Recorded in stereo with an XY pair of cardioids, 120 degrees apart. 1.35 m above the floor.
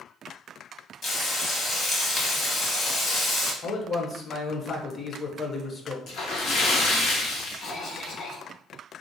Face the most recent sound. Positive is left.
turn(degrees=45)